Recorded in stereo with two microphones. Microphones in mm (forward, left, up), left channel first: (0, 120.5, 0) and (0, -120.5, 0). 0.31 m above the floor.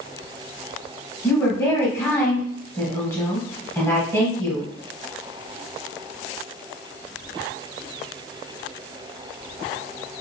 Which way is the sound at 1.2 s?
15° left (ahead or behind).